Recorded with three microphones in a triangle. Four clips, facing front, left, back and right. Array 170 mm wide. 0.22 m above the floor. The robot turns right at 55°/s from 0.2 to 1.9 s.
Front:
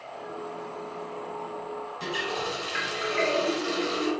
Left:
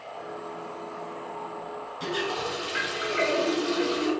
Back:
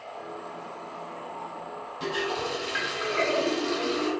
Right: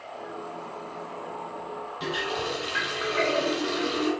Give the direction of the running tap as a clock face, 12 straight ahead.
4 o'clock.